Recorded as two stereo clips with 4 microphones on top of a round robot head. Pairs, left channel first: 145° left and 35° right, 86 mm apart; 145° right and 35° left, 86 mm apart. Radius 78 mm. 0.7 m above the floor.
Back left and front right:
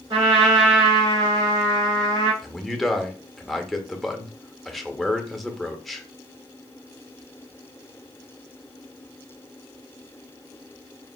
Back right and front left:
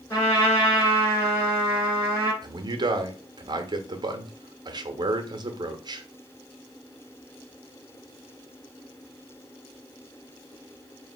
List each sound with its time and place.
0.1 s a trumpet: 80° right, 3 m
2.4 s a man speaking: 55° left, 0.9 m